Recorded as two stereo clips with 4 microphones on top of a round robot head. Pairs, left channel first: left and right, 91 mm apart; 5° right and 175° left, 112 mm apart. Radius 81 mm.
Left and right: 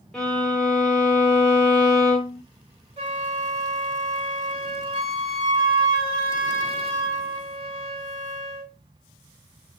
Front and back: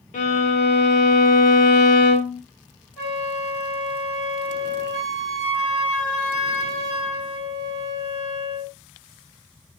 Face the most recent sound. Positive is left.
turn(degrees=-80)